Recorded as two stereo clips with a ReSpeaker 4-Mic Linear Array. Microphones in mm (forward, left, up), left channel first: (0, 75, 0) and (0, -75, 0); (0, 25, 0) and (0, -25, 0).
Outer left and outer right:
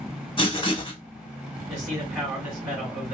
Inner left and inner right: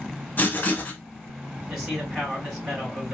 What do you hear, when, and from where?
0.4 s writing: 35° left (ahead or behind), 0.9 m
1.7 s a man speaking: 10° right (ahead or behind), 2 m